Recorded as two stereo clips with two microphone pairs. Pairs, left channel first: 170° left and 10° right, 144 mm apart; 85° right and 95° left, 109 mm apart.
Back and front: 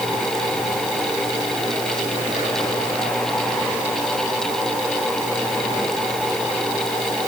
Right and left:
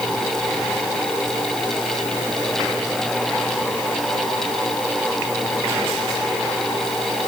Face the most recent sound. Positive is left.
No sound to turn to.